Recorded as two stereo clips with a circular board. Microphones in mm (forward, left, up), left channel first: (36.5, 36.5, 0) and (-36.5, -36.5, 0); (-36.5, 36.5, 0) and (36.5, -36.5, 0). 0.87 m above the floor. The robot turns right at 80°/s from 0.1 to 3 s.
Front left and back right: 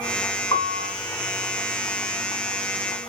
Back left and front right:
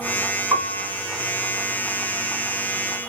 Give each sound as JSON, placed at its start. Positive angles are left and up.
{"t": 0.5, "sound": "a piano", "azimuth_deg": 20, "distance_m": 1.4}